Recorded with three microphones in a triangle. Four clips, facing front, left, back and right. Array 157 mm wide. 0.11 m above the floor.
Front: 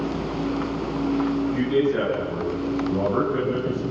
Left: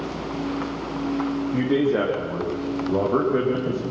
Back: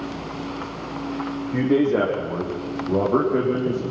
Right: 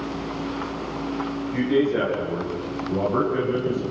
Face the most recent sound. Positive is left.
turn(degrees=150)